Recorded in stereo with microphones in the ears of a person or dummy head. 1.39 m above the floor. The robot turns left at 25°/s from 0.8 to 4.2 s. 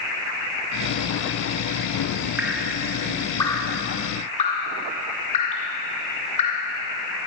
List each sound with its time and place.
2.4 s dripping: 10° right (ahead or behind), 1.7 m; by 6.7 s 30° left (ahead or behind), 1.7 m